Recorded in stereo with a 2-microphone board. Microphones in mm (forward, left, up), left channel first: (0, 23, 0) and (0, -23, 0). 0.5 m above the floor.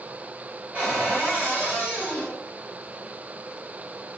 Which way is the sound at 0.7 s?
40° right (ahead or behind).